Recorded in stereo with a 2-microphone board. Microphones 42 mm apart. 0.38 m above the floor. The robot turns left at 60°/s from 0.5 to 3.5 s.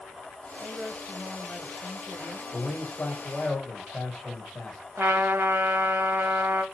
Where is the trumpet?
65° right (ahead or behind), 0.8 m.